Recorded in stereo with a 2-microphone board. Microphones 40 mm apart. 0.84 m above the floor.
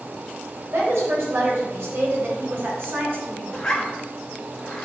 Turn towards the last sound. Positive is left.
turn(degrees=15)  # may be behind; listen again after turning